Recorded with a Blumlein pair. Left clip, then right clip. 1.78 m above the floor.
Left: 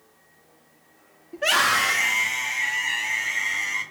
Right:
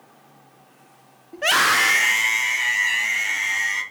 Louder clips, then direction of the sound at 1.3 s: Right 2 dB; 5° right.